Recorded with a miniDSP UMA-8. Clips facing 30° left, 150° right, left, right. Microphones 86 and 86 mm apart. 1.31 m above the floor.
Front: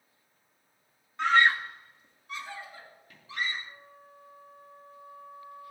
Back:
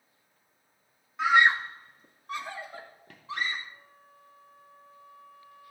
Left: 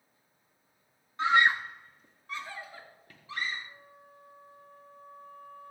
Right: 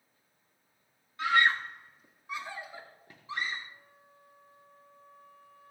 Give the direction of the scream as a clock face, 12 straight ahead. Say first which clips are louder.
Back 1 dB, left 2 dB; 8 o'clock.